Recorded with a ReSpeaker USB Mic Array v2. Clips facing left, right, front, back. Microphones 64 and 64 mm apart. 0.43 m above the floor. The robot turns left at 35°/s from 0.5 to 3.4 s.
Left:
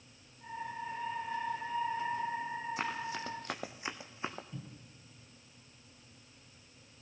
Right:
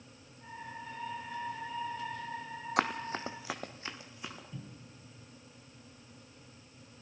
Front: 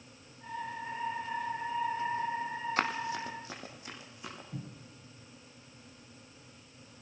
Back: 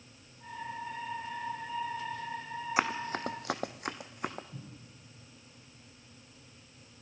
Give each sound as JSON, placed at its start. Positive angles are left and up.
{"t": 2.8, "sound": "running footsteps", "azimuth_deg": -100, "distance_m": 1.4}
{"t": 4.5, "sound": "a cupboard door", "azimuth_deg": 5, "distance_m": 2.5}